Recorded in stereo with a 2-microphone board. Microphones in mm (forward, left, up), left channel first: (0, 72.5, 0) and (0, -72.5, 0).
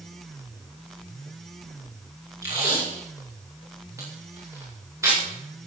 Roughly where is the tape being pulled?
Centre.